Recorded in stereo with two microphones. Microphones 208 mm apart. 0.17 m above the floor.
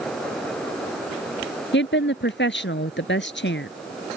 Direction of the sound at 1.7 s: 65° left (ahead or behind).